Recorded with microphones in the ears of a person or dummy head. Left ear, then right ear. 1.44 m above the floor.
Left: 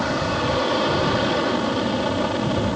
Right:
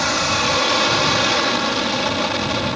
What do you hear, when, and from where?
0.0 s an aircraft: 55° right (ahead or behind)